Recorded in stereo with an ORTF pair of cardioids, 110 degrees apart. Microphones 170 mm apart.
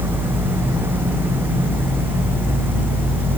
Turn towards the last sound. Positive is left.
turn(degrees=-10)